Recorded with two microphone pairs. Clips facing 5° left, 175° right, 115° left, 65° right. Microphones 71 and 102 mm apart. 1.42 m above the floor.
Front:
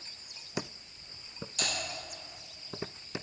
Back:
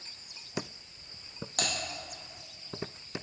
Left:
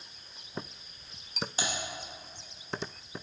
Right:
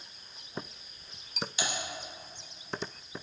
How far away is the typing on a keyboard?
About 2.5 m.